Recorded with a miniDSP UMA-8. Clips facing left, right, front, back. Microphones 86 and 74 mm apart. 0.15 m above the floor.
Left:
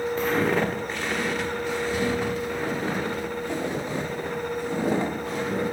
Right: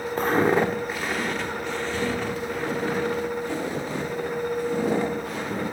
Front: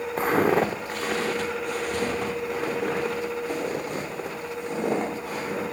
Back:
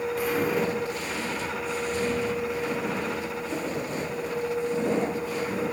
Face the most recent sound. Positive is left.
turn(degrees=30)